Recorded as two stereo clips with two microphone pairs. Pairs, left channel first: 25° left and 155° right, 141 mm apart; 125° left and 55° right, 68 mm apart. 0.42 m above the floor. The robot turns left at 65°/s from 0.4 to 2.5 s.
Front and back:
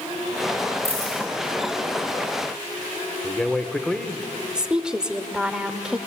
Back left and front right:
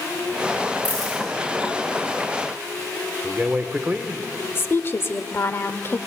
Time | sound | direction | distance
0.8 | a dropped coin | 100° left | 9 m
3.2 | a man speaking | 55° right | 1.1 m
4.5 | a woman speaking | 125° left | 1.1 m